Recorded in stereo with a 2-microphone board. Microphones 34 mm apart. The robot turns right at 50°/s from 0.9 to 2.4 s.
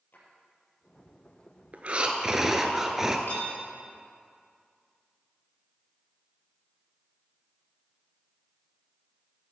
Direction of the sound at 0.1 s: 60° left (ahead or behind).